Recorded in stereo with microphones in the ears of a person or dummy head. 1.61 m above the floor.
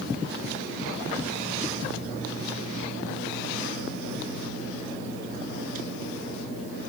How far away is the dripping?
No dripping in this recording.